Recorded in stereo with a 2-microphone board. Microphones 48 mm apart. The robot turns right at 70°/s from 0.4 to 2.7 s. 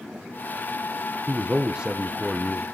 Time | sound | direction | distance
1.3 | a man speaking | 30° right (ahead or behind) | 0.6 m